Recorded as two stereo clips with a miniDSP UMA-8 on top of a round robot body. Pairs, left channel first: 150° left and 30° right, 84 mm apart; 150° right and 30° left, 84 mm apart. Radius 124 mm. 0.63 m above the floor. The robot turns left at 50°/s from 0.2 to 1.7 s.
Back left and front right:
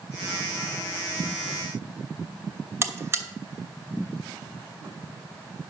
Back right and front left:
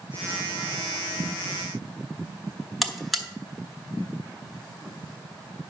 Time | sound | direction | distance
2.8 | a buzzer | 60° right | 1.3 m